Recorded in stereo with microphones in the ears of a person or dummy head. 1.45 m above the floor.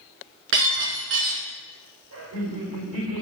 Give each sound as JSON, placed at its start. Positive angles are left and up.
{"t": 0.5, "sound": "breaking glass", "side_deg": -70, "distance_m": 4.5}
{"t": 2.1, "sound": "laughter", "side_deg": -70, "distance_m": 5.0}